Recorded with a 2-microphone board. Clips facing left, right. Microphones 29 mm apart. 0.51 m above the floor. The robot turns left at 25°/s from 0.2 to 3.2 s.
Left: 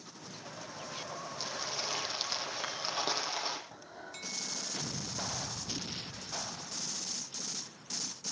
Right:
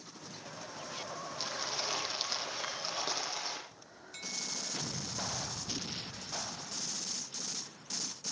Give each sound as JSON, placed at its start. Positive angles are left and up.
{"t": 1.4, "sound": "crumpling", "azimuth_deg": -160, "distance_m": 5.5}
{"t": 3.7, "sound": "breathing", "side_deg": 75, "distance_m": 5.0}